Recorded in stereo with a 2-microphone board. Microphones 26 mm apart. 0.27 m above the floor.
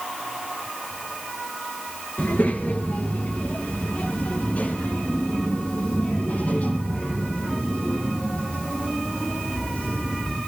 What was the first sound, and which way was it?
A child speaking, 75° left (ahead or behind).